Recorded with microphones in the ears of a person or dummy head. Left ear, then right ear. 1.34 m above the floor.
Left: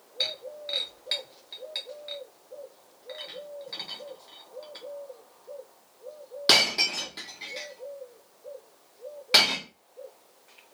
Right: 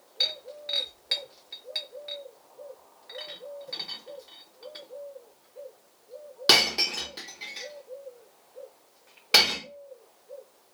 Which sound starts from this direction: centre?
Breaking glass, at 0.2 s.